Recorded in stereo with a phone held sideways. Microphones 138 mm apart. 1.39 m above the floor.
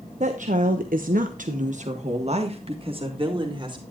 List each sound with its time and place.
0.2 s a woman speaking: 60° right (ahead or behind), 1.1 m; by 3.8 s 35° right (ahead or behind), 2.5 m